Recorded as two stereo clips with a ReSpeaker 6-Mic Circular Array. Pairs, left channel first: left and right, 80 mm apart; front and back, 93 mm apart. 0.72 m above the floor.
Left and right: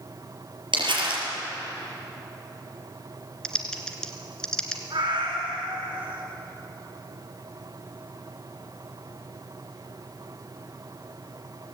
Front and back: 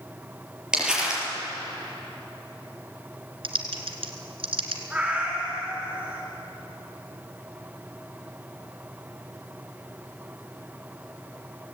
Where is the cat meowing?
105° right, 4 m.